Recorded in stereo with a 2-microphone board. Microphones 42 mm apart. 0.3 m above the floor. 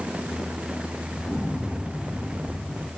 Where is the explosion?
15° left (ahead or behind), 4 m.